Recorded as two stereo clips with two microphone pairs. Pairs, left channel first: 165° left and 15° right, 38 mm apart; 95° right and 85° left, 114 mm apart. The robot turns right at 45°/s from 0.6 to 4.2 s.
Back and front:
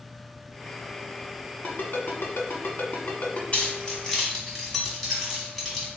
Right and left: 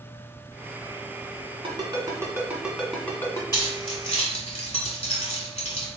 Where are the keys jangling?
145° right, 1.4 m; by 5.9 s 115° right, 1.4 m.